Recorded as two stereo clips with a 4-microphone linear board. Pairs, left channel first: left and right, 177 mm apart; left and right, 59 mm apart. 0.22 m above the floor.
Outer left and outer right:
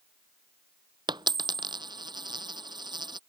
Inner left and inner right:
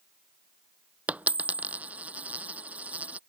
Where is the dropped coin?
25° right (ahead or behind).